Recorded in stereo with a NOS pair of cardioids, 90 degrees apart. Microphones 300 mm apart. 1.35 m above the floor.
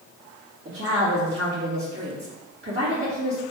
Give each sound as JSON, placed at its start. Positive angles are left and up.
{"t": 0.7, "sound": "a woman speaking", "azimuth_deg": -40, "distance_m": 2.0}